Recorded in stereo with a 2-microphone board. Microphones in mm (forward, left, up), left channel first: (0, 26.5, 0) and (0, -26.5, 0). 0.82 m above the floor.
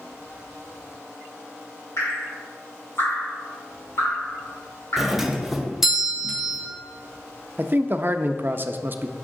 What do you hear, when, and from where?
2.0 s dripping: 55° left (ahead or behind), 3 m
5.0 s a doorbell: 10° right (ahead or behind), 0.8 m
7.6 s a man speaking: 40° right (ahead or behind), 0.5 m